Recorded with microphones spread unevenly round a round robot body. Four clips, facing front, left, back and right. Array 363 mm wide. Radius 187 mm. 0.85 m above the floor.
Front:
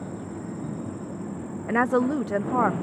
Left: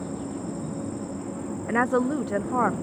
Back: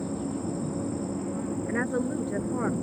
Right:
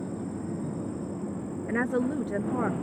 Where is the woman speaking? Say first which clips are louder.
Left 5 dB, front 9 dB; 20° left.